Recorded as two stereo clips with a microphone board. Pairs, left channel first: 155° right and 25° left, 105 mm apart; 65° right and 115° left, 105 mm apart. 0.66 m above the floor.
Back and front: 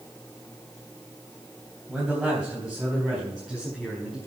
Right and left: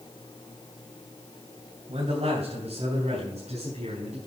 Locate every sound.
1.9 s a man speaking: 105° left, 3.5 m; by 4.2 s 120° left, 4.5 m